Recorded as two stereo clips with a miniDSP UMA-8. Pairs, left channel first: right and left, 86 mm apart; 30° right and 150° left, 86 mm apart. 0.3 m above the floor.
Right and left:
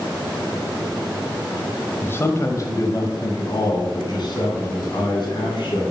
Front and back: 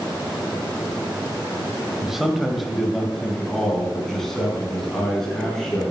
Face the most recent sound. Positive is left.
turn(degrees=-115)